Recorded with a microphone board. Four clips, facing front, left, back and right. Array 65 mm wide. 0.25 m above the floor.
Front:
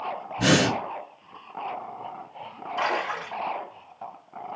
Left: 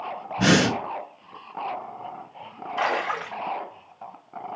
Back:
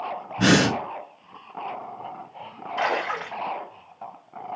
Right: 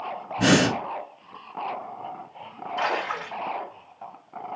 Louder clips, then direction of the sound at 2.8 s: Left 2 dB, back 2 dB; 135° left.